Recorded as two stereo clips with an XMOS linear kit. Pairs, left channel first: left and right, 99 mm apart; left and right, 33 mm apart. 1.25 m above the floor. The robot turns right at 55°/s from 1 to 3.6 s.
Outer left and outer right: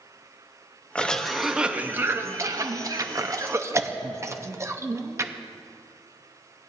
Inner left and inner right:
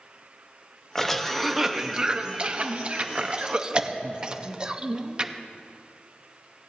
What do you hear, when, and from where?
0.9 s a cough: 10° left (ahead or behind), 0.7 m; by 5.3 s 30° right (ahead or behind), 0.7 m